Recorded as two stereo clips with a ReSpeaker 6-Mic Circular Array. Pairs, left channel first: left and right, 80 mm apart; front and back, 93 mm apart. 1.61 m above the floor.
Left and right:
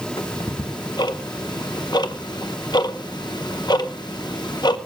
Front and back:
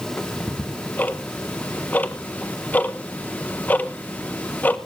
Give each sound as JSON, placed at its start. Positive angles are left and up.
{"t": 0.2, "sound": "ticking", "azimuth_deg": 70, "distance_m": 1.1}